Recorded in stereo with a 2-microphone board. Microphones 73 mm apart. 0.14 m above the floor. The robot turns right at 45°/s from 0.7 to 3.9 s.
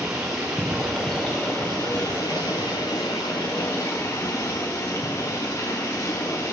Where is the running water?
10° right, 2.5 m; by 6.5 s 135° left, 2.5 m.